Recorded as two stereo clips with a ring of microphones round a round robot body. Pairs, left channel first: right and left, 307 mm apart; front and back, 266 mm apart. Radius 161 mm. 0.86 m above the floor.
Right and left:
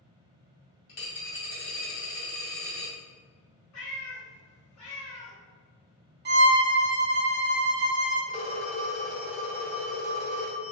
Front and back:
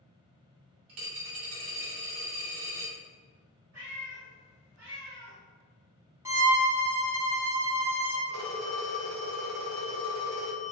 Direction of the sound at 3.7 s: 125° right.